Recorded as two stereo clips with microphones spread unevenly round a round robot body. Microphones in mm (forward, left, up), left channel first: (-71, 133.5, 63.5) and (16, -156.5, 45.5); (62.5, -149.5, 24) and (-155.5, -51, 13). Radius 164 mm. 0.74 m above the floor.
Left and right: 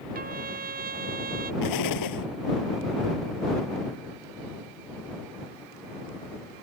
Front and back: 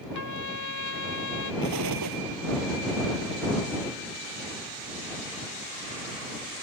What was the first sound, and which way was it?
A trumpet, 10° right.